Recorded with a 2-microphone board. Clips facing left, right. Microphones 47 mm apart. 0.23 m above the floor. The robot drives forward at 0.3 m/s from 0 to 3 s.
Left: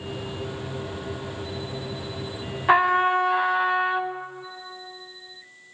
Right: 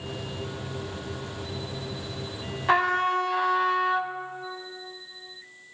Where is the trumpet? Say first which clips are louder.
Left 4 dB; 15° left (ahead or behind), 0.7 m; by 4.1 s 20° left (ahead or behind), 0.6 m.